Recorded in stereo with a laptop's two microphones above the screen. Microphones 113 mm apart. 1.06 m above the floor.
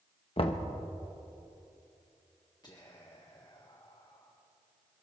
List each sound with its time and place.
0.4 s knocking: 50° left (ahead or behind), 0.9 m
2.6 s whispering: 35° left (ahead or behind), 1.3 m